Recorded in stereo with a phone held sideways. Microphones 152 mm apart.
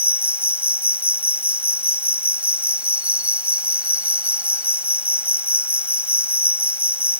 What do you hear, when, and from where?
0.0 s an insect: 10° right (ahead or behind)